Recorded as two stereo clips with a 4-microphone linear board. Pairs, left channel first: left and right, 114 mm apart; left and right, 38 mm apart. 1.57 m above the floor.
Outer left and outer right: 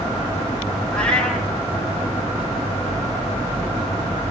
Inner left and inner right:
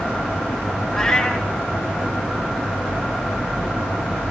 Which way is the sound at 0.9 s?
5° left (ahead or behind).